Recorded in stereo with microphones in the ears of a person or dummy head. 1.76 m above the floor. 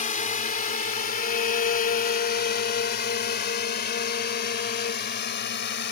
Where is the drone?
40° left (ahead or behind); by 5.9 s 55° left (ahead or behind).